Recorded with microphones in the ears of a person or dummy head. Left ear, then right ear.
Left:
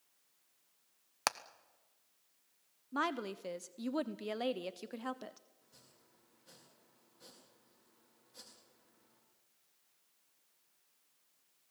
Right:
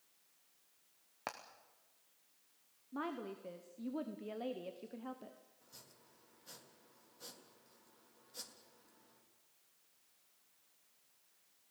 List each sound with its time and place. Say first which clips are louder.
1.3 s hammering: left 10 dB; 65° left (ahead or behind), 0.9 m
2.9 s a woman speaking: left 7 dB; 75° left (ahead or behind), 0.8 m
5.6 s chopping: right 4 dB; 20° right (ahead or behind), 3.5 m